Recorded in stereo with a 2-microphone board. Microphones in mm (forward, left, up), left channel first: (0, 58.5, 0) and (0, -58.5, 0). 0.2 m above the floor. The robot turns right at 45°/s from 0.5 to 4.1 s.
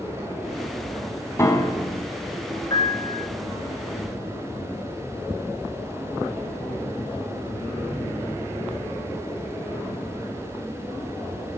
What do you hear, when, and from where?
1.4 s a piano: 25° left (ahead or behind), 0.9 m; by 2.1 s 35° left (ahead or behind), 0.9 m
2.7 s a piano: 35° left (ahead or behind), 1.2 m; by 3.3 s 60° left (ahead or behind), 1.2 m